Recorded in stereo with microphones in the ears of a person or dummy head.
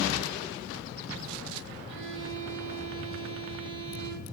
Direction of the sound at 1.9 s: 60° right (ahead or behind).